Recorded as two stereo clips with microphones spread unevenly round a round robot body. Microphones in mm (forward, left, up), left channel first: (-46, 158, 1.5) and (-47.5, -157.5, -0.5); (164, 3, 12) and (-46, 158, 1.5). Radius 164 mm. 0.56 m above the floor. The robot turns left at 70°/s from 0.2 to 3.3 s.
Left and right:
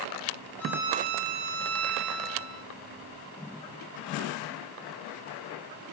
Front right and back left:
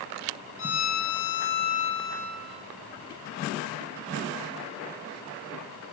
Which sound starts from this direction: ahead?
A violin, at 0.6 s.